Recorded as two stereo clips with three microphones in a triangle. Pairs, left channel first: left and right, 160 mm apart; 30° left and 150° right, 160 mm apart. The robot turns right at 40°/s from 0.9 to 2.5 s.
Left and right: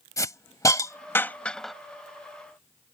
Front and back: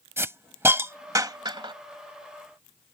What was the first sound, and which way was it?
A hiss, 145° left.